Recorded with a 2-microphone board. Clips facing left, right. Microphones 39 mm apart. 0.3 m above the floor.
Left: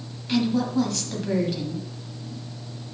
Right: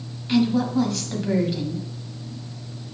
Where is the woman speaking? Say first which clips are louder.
Right 3 dB; 10° right (ahead or behind), 1.6 m.